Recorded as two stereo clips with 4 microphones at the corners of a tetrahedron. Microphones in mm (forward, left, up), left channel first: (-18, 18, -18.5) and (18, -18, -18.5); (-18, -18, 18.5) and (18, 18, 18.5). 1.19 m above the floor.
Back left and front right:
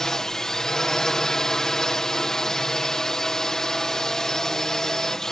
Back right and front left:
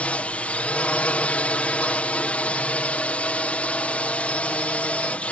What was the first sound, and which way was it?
A drone, 155° right.